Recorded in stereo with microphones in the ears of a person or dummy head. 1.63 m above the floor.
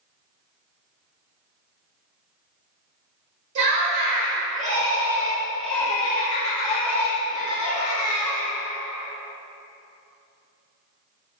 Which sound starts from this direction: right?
Laughter, at 3.5 s.